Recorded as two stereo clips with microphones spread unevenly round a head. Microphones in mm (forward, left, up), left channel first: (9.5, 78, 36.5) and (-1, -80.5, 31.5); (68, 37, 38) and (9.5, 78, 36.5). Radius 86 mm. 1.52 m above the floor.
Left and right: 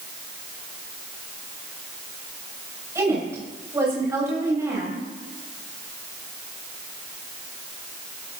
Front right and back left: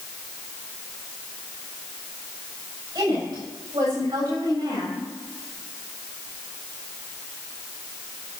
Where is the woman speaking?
165° right, 8 m.